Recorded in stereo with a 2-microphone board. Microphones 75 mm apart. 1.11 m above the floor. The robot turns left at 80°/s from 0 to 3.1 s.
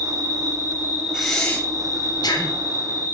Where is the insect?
85° right, 3.5 m; by 3.2 s 25° left, 3.5 m.